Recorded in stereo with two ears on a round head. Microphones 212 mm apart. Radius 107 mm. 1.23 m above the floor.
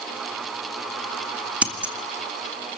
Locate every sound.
1.6 s scissors: 5° right (ahead or behind), 2 m